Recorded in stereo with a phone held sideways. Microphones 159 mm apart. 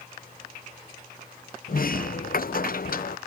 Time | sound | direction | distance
1.7 | a sliding door | 65° left (ahead or behind) | ?